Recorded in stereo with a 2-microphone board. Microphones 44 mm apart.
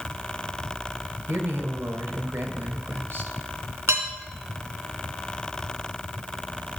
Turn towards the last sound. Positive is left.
turn(degrees=-80)